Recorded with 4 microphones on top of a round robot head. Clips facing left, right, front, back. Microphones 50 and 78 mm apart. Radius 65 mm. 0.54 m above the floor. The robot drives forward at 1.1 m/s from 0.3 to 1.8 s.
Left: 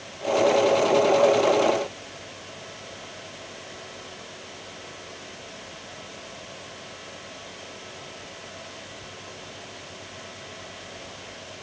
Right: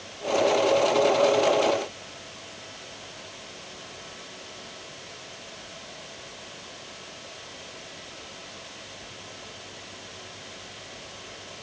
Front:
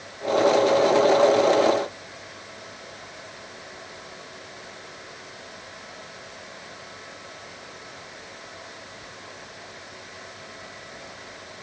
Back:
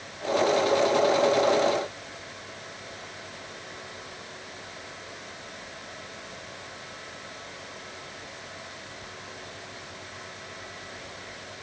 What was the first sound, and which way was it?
Only background noise.